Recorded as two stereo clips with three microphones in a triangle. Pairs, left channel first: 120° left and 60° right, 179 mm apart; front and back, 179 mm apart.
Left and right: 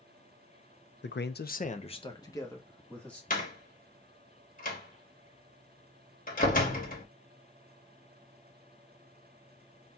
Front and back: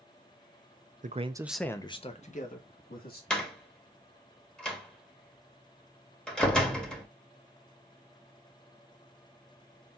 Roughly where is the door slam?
Left.